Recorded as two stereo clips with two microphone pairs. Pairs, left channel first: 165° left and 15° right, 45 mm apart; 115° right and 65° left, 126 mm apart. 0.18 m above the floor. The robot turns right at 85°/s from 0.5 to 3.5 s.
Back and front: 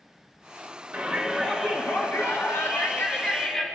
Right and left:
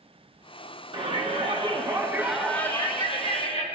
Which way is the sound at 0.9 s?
30° left.